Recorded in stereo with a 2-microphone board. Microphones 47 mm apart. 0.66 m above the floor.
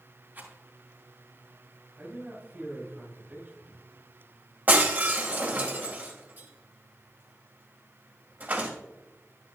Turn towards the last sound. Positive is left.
turn(degrees=-40)  # may be behind; listen again after turning